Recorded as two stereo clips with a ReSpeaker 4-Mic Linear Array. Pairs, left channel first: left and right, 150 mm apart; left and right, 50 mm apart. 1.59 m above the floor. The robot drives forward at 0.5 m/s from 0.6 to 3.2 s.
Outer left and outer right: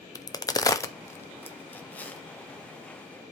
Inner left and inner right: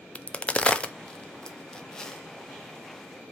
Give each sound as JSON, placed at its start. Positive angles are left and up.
{"t": 0.1, "sound": "a crack", "side_deg": 25, "distance_m": 0.5}